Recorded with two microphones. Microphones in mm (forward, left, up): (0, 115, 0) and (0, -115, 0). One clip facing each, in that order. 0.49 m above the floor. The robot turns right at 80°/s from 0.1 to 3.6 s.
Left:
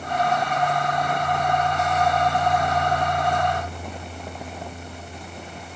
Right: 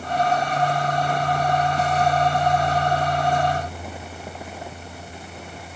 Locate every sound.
Only background noise.